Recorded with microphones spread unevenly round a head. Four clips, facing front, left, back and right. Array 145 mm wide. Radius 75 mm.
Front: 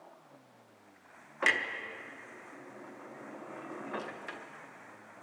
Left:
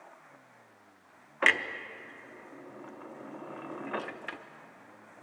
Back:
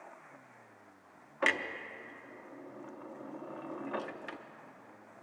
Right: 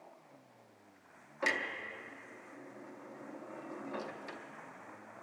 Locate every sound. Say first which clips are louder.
1.4 s a clunk: left 7 dB, front 1 dB; 110° left, 0.6 m